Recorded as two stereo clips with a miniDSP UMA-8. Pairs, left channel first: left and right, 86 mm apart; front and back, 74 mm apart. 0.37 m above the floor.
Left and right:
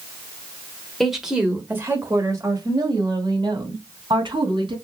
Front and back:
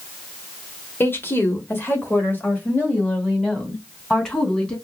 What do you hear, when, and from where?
1.0 s a woman speaking: straight ahead, 1.1 m; by 4.8 s 75° right, 2.5 m